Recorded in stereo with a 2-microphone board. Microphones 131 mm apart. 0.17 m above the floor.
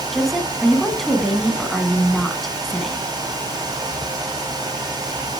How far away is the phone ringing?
No phone ringing in this recording.